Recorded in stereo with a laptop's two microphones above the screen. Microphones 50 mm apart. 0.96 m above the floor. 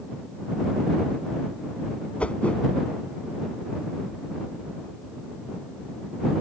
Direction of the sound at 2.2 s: 25° left (ahead or behind).